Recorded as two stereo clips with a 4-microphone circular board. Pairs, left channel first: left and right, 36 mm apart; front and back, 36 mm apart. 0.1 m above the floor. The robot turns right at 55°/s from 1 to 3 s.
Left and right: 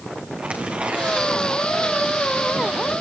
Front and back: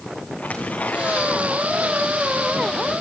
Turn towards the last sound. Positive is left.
turn(degrees=65)